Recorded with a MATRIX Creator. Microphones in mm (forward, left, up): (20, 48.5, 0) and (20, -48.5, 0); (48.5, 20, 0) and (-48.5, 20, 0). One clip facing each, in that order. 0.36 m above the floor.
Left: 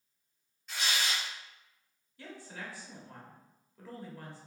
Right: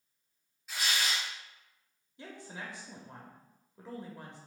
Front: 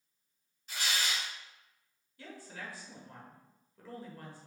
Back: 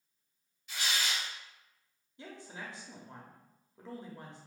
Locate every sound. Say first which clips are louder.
0.7 s tearing paper: even, even; 5° right, 1.9 m
2.2 s a woman speaking: even, back 1 dB; 140° right, 0.9 m